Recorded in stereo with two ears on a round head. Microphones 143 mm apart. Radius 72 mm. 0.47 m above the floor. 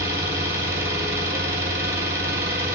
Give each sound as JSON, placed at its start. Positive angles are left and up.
{"t": 0.0, "sound": "an engine running", "side_deg": -20, "distance_m": 4.0}